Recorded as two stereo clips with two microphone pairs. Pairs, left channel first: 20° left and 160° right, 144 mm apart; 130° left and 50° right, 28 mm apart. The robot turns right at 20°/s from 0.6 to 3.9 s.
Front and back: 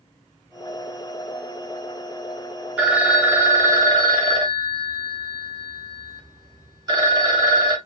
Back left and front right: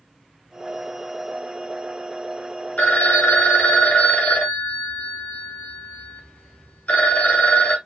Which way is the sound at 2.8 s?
115° left.